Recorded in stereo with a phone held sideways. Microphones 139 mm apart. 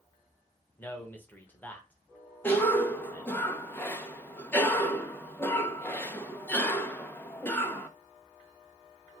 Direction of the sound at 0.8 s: 10° left (ahead or behind).